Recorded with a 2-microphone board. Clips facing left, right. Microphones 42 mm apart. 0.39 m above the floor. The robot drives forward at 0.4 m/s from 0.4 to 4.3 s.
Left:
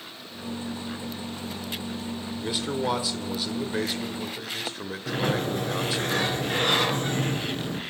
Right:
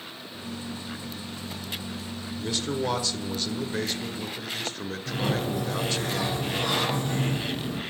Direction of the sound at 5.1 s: 55° left (ahead or behind).